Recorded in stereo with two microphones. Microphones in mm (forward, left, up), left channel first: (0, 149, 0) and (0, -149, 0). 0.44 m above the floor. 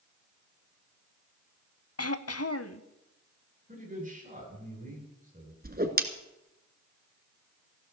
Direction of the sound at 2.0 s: 55° left (ahead or behind).